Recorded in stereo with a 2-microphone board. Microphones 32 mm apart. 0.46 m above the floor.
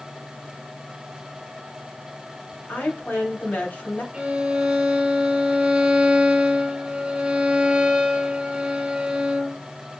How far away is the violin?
About 1.6 m.